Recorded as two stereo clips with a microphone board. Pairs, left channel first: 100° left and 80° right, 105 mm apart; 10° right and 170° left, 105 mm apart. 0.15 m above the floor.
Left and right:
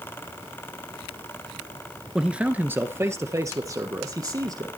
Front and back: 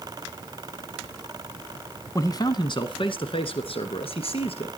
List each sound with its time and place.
2.1 s a man speaking: straight ahead, 1.2 m; by 4.7 s 30° right, 3.5 m